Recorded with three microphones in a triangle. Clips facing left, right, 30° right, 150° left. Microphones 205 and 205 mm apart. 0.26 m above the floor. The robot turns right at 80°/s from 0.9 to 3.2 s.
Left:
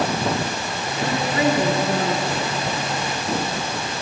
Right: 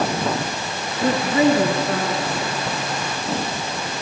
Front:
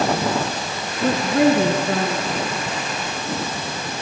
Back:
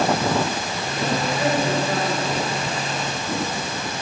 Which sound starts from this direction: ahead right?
A woman speaking, at 1.0 s.